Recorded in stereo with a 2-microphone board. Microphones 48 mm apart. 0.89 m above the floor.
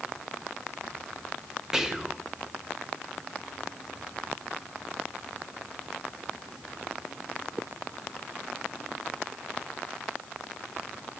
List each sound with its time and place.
1.7 s whispering: 15° right (ahead or behind), 0.9 m